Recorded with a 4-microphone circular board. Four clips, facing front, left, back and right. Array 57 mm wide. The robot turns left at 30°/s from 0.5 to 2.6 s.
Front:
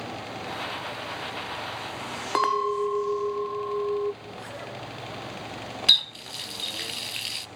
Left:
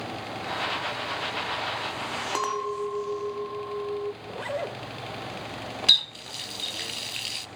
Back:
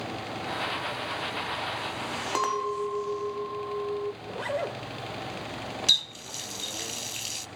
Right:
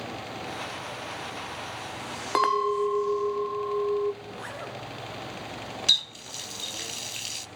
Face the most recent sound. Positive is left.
turn(degrees=40)